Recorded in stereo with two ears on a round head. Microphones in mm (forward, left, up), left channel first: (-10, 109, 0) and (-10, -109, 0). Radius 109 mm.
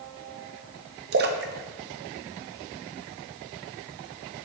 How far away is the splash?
About 0.6 m.